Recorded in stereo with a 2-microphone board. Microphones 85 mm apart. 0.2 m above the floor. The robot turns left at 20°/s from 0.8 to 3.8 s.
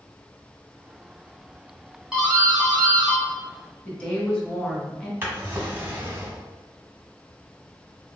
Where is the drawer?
25° right (ahead or behind), 0.9 m.